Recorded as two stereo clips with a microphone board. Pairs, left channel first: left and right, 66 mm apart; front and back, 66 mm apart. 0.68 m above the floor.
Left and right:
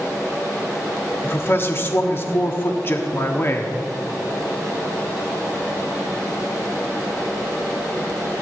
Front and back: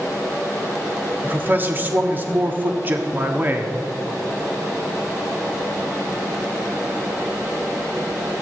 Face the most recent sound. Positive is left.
turn(degrees=130)